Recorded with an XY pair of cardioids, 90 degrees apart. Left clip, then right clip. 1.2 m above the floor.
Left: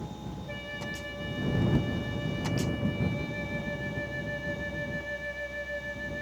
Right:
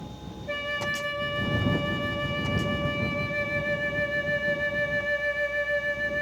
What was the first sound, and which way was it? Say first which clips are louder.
A flute: right 10 dB; 70° right.